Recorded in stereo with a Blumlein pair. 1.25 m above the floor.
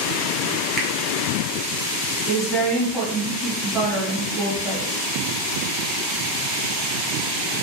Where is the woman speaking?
Straight ahead, 1.3 m.